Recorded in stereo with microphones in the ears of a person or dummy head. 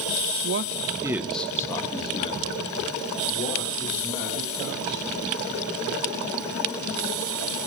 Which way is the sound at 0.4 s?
70° right (ahead or behind).